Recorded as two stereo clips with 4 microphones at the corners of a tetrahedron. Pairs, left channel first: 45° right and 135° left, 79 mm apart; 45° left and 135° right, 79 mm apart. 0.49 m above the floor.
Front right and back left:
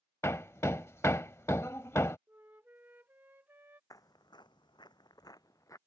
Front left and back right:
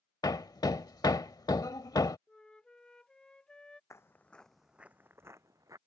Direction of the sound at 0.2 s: 10° left.